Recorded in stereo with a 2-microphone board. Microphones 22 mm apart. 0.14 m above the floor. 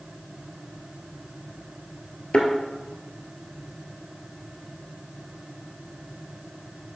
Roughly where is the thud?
Left.